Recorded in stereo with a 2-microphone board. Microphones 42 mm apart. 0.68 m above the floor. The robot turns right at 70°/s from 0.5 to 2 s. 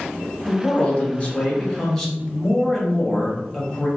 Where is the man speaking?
55° left, 0.9 m; by 3.9 s 160° left, 0.9 m.